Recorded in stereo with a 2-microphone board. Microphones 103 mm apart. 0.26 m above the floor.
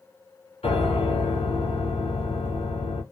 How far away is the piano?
About 1.0 m.